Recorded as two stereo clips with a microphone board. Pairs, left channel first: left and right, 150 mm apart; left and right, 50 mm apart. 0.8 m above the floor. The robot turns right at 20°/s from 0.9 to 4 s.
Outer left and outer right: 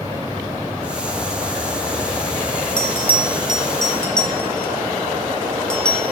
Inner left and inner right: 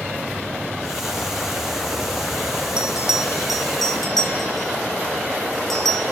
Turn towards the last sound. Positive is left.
turn(degrees=5)  # may be behind; listen again after turning